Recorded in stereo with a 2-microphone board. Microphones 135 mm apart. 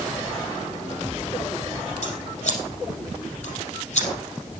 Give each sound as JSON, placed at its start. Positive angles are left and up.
{"t": 2.0, "sound": "scissors", "side_deg": 60, "distance_m": 5.0}